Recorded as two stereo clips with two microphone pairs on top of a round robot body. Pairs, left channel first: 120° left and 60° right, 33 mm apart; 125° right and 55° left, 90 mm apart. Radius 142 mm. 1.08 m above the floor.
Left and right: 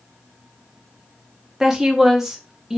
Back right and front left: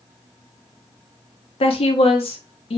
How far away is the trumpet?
No trumpet in this recording.